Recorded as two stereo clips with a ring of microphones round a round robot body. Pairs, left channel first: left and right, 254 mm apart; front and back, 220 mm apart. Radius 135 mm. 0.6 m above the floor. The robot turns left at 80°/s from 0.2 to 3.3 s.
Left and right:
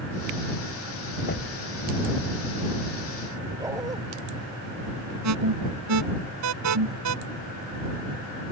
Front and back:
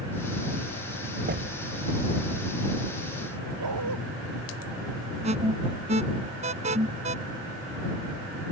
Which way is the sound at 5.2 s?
115° right.